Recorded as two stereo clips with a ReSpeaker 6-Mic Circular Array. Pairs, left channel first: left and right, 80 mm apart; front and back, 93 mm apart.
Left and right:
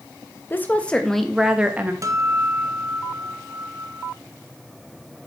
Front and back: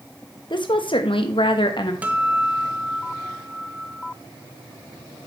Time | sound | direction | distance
0.5 | a woman speaking | 30° left | 1.2 m
2.0 | a guitar | 110° right | 1.0 m